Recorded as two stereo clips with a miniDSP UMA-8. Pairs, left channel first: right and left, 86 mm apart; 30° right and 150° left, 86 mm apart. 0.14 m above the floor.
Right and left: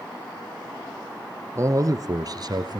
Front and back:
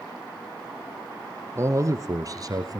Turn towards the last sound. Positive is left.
turn(degrees=115)